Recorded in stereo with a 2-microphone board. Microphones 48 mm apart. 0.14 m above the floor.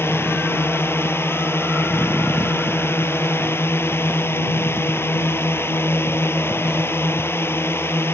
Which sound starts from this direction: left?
A drone, at 0.0 s.